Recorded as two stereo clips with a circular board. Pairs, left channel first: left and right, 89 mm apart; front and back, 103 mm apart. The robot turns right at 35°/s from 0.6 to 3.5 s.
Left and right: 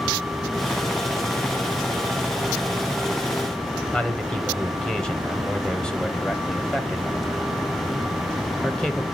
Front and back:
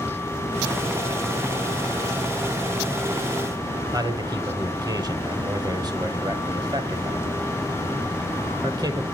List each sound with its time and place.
3.9 s a man speaking: 165° left, 1.1 m